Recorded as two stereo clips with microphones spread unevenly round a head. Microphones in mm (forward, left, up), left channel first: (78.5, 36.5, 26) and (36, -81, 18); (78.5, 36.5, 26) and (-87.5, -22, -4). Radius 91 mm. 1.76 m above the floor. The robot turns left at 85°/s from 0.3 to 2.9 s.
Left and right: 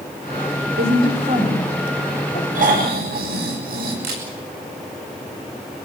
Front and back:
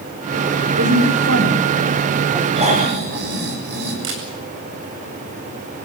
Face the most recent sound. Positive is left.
turn(degrees=-135)